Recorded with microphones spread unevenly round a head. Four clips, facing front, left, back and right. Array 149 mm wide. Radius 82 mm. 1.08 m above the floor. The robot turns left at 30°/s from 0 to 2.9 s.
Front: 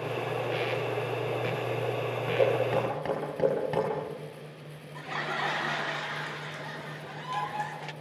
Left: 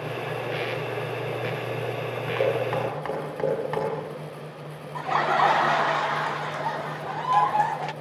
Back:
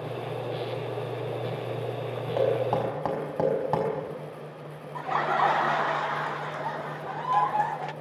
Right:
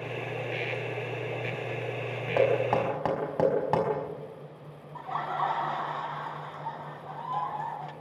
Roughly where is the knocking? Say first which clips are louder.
Right 1 dB, back 1 dB; behind right.